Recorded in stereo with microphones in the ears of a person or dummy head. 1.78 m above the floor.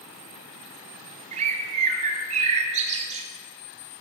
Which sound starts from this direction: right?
A bird, at 1.3 s.